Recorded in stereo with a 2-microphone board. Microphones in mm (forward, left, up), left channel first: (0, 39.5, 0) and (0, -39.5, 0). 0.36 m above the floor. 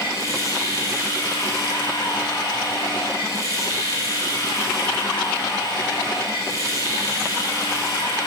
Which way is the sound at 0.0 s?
45° left (ahead or behind).